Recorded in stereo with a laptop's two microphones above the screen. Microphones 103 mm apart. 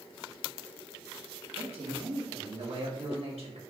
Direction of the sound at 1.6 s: 70° right (ahead or behind).